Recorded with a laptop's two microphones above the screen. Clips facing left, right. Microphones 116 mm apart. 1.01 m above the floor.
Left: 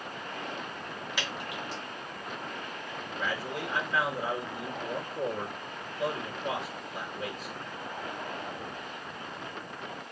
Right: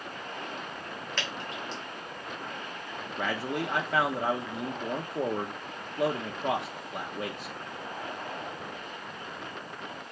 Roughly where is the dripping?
Centre.